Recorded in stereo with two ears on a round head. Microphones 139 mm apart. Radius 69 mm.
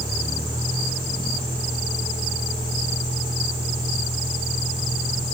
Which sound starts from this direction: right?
A vehicle, at 0.0 s.